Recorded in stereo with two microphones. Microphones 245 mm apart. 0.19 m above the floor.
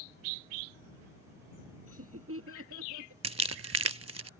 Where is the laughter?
60° right (ahead or behind); by 3.1 s 55° right (ahead or behind).